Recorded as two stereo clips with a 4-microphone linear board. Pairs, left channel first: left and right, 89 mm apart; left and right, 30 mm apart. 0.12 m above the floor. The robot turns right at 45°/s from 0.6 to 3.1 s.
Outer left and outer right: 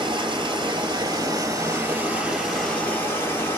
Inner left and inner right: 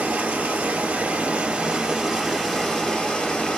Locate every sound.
0.0 s running water: 85° right, 1.7 m; by 3.6 s 30° left, 1.7 m